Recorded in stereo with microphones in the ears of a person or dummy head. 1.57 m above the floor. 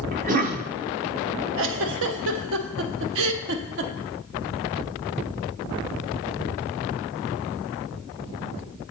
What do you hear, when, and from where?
0.1 s a cough: 45° right (ahead or behind), 0.9 m
1.6 s a giggle: 70° right (ahead or behind), 0.7 m